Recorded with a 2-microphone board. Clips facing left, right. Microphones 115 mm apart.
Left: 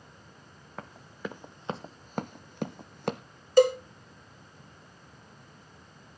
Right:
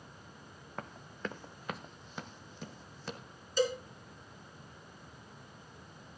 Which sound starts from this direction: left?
A cowbell, at 3.6 s.